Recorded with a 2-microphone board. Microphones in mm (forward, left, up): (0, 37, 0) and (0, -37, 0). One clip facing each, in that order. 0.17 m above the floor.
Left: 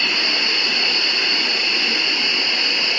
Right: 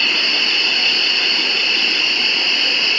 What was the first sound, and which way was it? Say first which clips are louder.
An insect: right 2 dB; 20° left (ahead or behind).